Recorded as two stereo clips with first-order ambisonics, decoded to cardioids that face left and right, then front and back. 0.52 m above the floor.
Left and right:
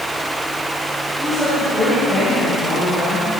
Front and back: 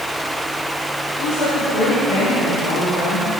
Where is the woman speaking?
5° left, 3.5 m; by 3.3 s 15° left, 4.5 m.